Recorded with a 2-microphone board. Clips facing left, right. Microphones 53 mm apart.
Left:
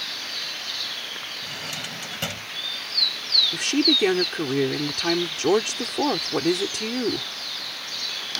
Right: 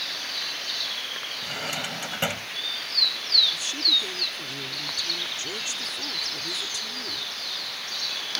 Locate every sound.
1.4 s a drawer: 25° right (ahead or behind)
3.5 s a woman speaking: 70° left (ahead or behind)